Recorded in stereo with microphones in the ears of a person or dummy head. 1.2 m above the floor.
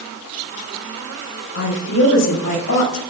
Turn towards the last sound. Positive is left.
turn(degrees=65)  # may be behind; listen again after turning